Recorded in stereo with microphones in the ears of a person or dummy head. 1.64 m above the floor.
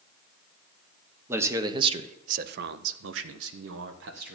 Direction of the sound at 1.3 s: 15° right (ahead or behind).